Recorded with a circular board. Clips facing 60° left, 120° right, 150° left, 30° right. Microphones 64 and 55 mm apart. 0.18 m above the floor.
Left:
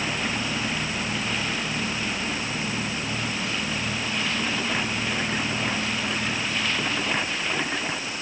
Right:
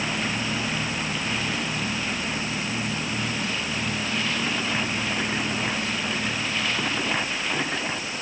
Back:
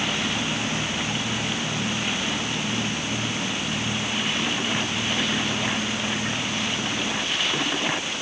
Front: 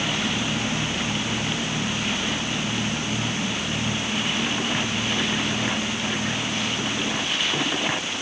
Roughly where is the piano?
No piano in this recording.